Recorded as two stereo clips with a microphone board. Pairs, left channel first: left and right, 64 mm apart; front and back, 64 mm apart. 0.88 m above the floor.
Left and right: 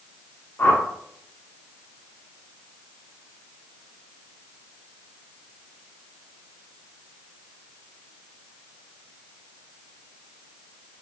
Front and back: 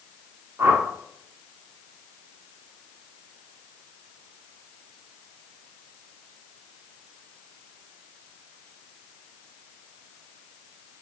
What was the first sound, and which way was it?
A whoosh, 135° left.